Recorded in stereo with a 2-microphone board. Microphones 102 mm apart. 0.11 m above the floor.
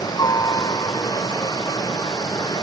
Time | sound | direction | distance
0.0 | a helicopter | 40° left (ahead or behind) | ?